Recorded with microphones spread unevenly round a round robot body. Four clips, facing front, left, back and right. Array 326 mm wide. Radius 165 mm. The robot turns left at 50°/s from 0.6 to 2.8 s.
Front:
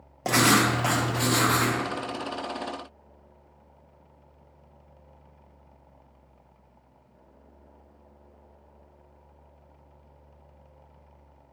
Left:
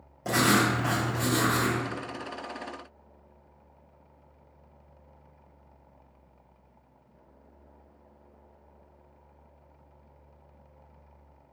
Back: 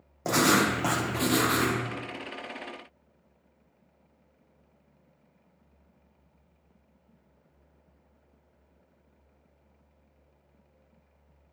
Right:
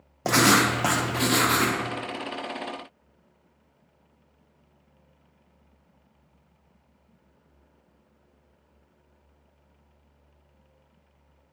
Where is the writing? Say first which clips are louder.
Right 3 dB, front 2 dB; 75° right, 0.6 m; by 1.8 s 135° right, 0.6 m.